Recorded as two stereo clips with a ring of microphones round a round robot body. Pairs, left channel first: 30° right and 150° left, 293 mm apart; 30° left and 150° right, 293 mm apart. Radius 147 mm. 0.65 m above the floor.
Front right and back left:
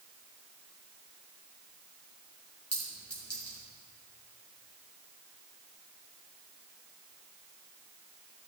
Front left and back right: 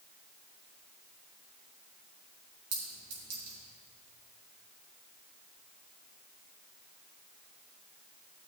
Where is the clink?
115° right, 4 m.